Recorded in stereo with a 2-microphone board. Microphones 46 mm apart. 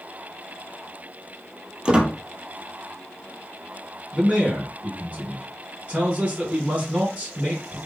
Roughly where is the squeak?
Right.